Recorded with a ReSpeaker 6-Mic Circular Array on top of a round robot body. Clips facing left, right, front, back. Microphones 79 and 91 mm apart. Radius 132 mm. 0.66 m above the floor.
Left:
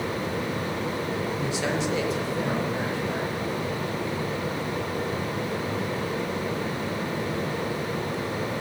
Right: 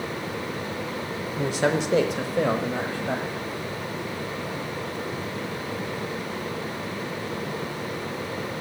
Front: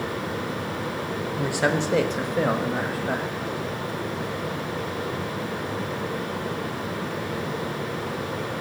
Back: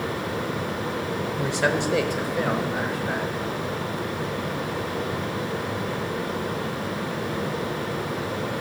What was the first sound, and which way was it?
A man speaking, 80° right.